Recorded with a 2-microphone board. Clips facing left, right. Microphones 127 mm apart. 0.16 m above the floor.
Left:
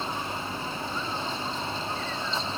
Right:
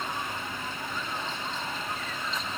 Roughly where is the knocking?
No knocking in this recording.